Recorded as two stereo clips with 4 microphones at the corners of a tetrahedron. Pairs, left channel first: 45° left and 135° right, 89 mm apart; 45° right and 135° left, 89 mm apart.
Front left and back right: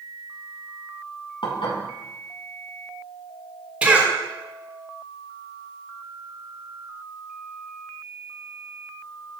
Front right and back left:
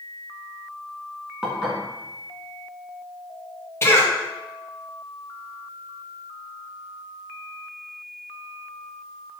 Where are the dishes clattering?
50° left, 2.5 m.